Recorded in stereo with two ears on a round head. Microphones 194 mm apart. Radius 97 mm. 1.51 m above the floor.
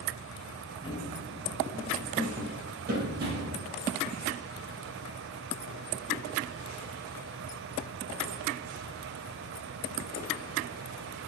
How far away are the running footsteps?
About 1.8 m.